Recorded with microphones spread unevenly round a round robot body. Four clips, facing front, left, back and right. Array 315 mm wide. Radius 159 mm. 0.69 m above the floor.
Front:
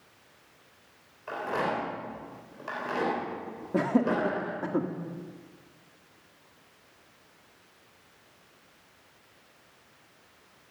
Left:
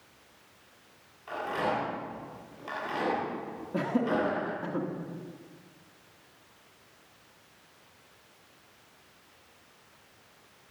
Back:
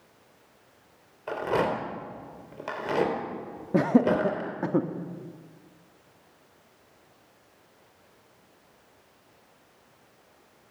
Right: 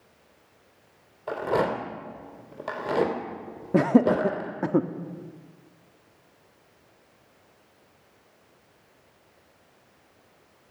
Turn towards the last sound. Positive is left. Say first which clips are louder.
# right 9 dB, back 4 dB
turn(degrees=-105)